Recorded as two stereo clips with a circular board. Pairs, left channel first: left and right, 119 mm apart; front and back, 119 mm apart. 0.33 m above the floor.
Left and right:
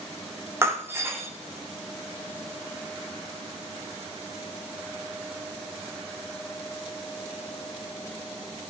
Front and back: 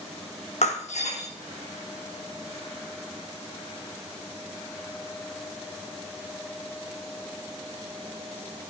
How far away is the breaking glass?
About 1.9 m.